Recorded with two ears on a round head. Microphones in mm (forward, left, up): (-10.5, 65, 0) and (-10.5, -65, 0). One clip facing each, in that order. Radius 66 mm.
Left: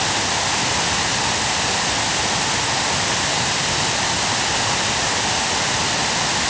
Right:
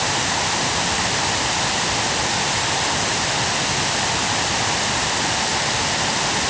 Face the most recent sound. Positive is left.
No sound to turn to.